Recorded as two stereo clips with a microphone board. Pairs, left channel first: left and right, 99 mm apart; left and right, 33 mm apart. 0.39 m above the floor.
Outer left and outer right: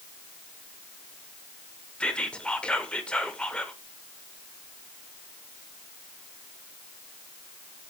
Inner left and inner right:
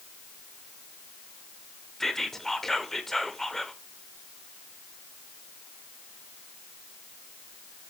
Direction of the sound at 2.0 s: 10° left (ahead or behind).